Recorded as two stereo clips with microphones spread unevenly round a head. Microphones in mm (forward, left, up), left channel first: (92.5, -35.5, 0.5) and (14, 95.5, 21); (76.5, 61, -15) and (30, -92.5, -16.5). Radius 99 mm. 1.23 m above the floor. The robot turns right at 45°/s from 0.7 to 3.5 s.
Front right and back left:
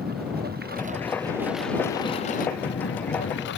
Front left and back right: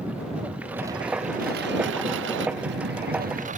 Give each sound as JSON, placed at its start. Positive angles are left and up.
{"t": 0.0, "sound": "a lawn mower", "azimuth_deg": 170}